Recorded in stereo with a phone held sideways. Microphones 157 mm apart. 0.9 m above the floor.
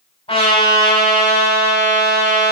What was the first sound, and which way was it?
A trumpet, 40° left (ahead or behind).